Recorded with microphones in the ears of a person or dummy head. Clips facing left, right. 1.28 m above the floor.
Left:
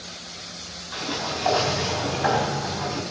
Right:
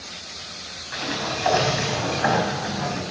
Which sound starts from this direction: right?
A sliding door, at 0.9 s.